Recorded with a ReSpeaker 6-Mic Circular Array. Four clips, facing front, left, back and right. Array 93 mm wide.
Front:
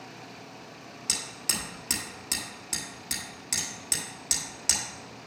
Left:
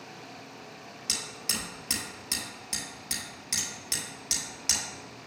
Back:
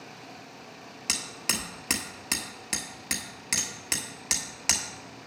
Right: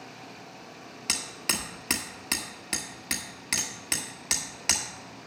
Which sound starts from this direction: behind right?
Hammering, at 1.1 s.